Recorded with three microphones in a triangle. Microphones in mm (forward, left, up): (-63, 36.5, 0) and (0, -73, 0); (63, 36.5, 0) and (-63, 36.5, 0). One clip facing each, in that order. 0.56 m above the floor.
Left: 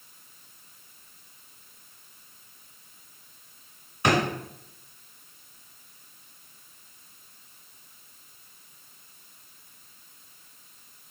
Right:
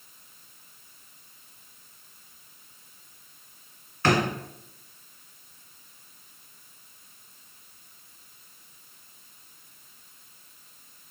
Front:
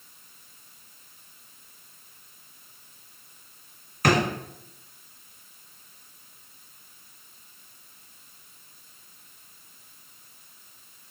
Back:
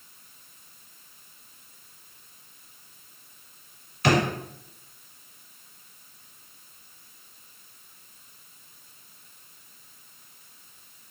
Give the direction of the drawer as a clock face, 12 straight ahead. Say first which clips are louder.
Even, even; 10 o'clock.